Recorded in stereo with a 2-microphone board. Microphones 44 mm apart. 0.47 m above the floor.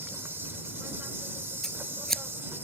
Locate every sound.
0.0 s an insect: 60° right (ahead or behind)
1.6 s scissors: 10° left (ahead or behind)